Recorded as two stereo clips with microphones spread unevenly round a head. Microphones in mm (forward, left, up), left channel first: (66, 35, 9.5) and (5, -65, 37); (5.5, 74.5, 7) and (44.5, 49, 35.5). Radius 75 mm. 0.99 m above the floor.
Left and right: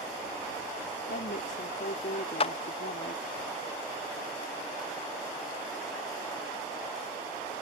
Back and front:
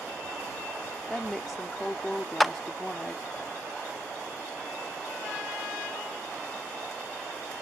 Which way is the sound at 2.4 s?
75° left.